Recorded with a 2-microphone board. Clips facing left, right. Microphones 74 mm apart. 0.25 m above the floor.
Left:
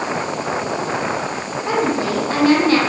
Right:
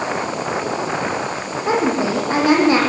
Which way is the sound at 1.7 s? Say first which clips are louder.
Right 1 dB; 20° right (ahead or behind).